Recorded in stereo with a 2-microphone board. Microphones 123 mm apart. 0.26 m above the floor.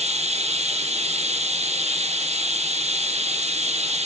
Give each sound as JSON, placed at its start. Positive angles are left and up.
{"t": 0.0, "sound": "running water", "side_deg": -60, "distance_m": 2.5}